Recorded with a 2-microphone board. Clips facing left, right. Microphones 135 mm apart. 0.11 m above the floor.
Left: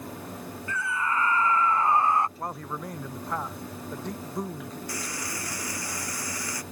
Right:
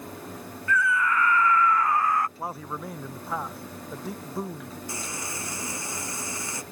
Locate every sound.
0.7 s a scream: 30° left (ahead or behind); by 2.3 s 25° left (ahead or behind)
2.4 s a man speaking: 5° right (ahead or behind)
4.9 s frying: 25° right (ahead or behind)